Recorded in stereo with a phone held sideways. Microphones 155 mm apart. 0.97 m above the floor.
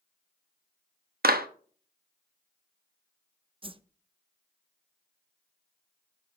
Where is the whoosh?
35° right (ahead or behind), 0.6 m.